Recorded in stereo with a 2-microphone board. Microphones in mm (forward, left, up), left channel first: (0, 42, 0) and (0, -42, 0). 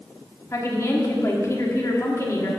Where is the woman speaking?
35° left (ahead or behind), 1.4 m.